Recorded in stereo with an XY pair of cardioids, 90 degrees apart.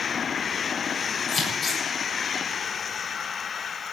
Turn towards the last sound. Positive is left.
turn(degrees=50)